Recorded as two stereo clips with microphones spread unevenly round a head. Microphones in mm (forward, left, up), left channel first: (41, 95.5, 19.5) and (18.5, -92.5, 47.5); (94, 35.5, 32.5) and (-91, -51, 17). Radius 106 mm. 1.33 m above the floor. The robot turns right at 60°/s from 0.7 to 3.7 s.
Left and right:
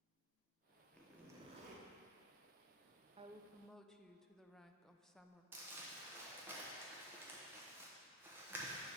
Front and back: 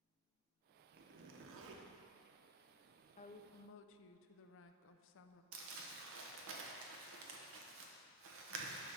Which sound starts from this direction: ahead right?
A woman speaking, at 3.2 s.